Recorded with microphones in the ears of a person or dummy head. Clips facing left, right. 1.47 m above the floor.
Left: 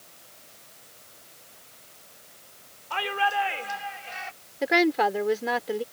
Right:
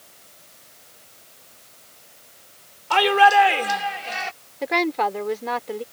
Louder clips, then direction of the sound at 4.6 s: Left 1 dB; 10° left (ahead or behind).